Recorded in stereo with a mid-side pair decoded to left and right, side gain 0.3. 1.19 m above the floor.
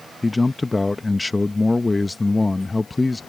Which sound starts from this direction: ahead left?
A man speaking, at 0.2 s.